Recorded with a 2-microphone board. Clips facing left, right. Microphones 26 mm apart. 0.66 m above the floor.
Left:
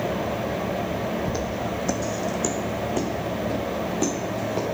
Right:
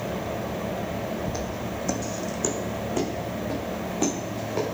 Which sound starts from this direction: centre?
Footsteps, at 1.3 s.